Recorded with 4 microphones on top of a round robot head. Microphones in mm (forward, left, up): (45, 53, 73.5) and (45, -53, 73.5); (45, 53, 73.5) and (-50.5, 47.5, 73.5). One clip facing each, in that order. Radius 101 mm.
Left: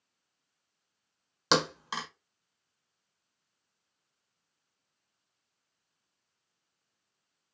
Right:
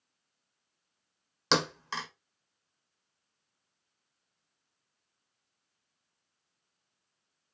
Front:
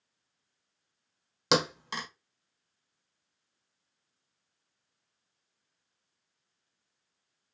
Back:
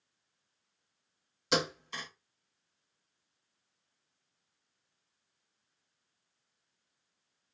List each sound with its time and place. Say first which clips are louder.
1.5 s a thud: left 1 dB, front 4 dB; 15° left, 1.1 m